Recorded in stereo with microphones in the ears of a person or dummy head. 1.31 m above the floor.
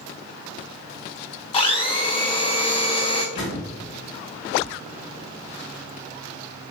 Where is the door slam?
70° left (ahead or behind), 2 m.